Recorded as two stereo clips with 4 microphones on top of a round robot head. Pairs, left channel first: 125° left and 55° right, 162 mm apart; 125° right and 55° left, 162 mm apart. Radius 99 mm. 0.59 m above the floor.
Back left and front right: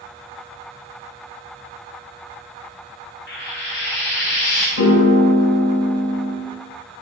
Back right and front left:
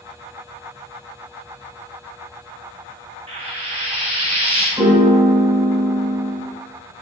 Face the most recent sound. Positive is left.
turn(degrees=125)